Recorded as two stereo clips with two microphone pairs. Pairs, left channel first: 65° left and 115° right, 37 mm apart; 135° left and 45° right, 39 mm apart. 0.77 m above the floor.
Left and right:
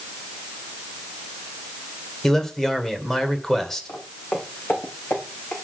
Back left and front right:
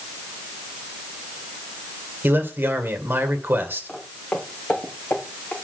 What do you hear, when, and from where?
2.2 s a man speaking: 20° right, 2 m
3.9 s footsteps: 85° left, 3 m; by 5.5 s 90° left, 4 m